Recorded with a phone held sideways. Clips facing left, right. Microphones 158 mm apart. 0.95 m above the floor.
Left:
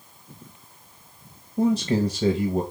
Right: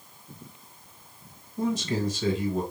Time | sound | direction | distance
1.6 | a man speaking | 40° left (ahead or behind) | 0.9 m